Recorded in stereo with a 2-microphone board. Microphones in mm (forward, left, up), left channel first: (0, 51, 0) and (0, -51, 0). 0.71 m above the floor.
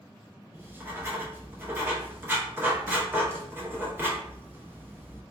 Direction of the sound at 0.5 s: 20° right (ahead or behind).